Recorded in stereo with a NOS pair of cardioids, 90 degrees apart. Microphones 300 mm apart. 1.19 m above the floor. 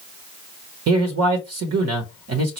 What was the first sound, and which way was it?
A man speaking, 55° right.